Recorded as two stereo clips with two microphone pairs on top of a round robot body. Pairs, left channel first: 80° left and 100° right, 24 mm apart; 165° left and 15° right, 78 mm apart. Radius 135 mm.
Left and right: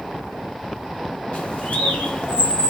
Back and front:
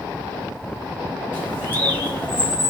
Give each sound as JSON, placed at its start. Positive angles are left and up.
{"t": 1.3, "sound": "a bird", "azimuth_deg": 100, "distance_m": 1.5}